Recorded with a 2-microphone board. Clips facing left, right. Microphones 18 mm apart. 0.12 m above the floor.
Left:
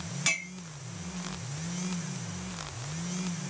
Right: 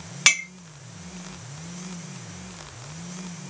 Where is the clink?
40° right (ahead or behind), 0.8 m.